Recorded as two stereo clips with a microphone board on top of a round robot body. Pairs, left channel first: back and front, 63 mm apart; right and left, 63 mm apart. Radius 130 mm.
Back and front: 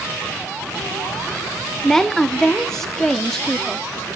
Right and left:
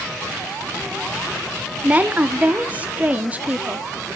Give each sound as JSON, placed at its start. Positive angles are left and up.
{"t": 1.8, "sound": "a woman speaking", "azimuth_deg": 105, "distance_m": 0.8}